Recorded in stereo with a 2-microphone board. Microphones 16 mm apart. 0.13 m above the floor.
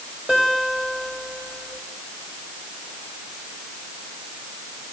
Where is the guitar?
70° right (ahead or behind), 9 m.